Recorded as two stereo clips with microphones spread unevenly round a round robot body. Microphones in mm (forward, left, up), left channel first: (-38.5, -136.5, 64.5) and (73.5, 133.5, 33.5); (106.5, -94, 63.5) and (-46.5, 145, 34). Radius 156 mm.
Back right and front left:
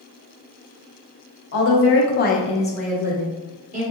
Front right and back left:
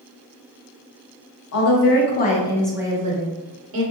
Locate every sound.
1.5 s a woman speaking: 80° right, 1.0 m; by 3.8 s 115° left, 1.0 m